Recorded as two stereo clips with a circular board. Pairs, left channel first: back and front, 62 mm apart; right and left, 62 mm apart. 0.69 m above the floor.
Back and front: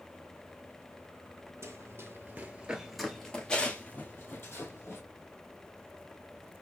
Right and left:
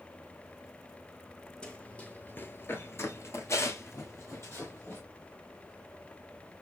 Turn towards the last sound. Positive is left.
turn(degrees=-135)